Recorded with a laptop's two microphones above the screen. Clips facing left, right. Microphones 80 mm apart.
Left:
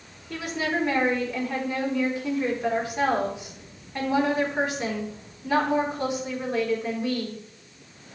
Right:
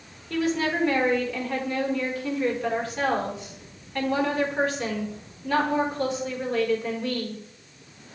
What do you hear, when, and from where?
0.3 s a woman speaking: 15° left (ahead or behind), 3.5 m